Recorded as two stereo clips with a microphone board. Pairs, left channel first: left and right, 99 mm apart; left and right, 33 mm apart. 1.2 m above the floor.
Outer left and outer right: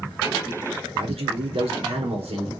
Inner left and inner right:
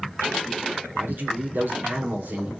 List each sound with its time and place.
0.9 s a man speaking: 80° right, 3.5 m